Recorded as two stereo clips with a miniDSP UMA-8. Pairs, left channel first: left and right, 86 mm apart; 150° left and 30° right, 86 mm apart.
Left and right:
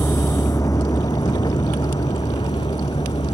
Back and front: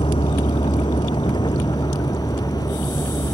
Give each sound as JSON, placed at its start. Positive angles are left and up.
{"t": 0.0, "sound": "a vehicle", "azimuth_deg": 150}